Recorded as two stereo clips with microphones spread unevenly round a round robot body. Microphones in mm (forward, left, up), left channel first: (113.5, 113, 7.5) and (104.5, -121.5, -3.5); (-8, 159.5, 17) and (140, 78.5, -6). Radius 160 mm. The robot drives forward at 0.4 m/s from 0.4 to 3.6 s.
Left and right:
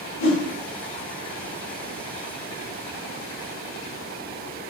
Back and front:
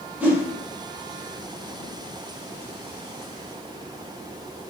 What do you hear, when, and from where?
0.2 s a whoosh: 50° left, 1.0 m